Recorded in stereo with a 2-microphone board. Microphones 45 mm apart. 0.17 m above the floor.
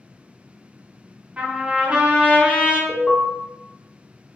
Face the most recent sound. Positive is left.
turn(degrees=30)  # may be behind; listen again after turning